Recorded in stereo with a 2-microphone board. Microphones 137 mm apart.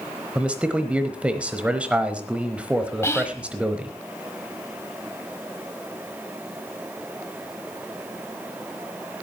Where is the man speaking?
10° right (ahead or behind), 1.0 m.